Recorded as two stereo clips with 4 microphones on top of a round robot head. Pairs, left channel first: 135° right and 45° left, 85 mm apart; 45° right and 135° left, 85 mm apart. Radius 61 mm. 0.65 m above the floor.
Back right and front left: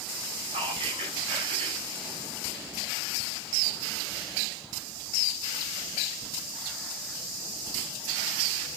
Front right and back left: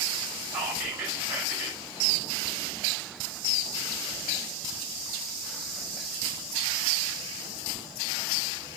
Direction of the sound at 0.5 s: 60° left.